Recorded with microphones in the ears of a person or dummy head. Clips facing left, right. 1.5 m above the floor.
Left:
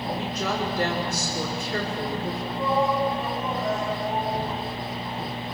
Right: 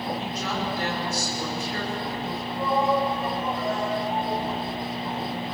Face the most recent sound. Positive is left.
turn(degrees=-5)  # may be behind; listen again after turning